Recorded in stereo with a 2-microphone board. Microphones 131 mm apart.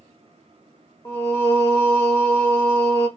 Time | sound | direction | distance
1.1 | singing | 20° left (ahead or behind) | 0.7 m